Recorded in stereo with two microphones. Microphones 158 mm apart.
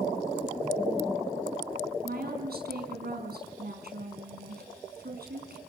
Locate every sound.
2.0 s a woman speaking: 75° right (ahead or behind), 5 m